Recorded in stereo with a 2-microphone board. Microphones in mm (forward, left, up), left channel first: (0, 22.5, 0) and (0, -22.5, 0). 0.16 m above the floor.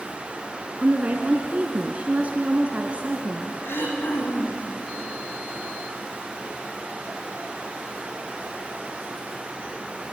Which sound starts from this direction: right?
A woman speaking, at 0.8 s.